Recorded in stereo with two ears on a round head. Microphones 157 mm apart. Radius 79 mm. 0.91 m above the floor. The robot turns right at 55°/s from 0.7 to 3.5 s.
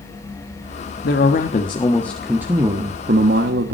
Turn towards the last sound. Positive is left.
turn(degrees=-110)